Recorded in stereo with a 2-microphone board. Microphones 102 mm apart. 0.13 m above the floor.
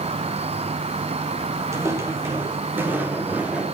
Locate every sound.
0.0 s an insect: 70° right (ahead or behind), 1.2 m
1.7 s footsteps: 25° right (ahead or behind), 4 m; by 3.6 s 10° right (ahead or behind), 4 m